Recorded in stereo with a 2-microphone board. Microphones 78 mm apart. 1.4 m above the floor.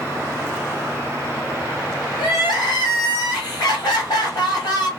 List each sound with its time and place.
2.2 s crying: 60° left (ahead or behind), 2.5 m